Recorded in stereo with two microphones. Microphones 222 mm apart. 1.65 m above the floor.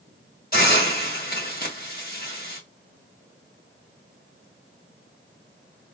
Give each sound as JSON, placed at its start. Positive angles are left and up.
{"t": 0.5, "sound": "a hiss", "side_deg": 40, "distance_m": 2.5}